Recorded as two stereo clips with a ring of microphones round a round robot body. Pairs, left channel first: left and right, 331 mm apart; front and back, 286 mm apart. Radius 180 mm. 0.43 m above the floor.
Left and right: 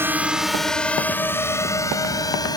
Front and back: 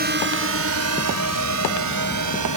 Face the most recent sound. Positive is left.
turn(degrees=170)